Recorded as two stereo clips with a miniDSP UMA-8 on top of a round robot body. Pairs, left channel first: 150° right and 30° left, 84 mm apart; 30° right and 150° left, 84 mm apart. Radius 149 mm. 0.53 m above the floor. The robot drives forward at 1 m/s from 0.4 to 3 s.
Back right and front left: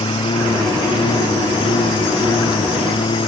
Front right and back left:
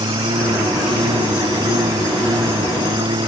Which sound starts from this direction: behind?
A lawn mower, at 0.0 s.